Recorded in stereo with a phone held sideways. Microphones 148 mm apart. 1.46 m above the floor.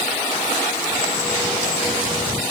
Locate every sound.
Only background noise.